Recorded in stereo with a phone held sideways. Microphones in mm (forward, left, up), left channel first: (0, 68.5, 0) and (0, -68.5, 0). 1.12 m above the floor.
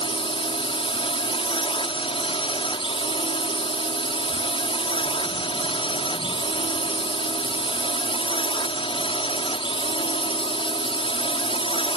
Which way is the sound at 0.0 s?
40° left (ahead or behind).